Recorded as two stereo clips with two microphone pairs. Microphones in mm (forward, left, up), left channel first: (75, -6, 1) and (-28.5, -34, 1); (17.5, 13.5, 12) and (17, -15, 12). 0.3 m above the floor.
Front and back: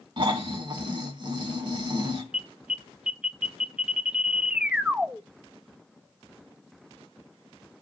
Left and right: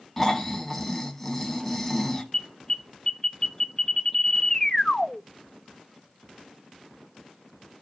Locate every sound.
0.2 s snoring: 165° left, 1.4 m
2.3 s an alarm: 120° left, 0.6 m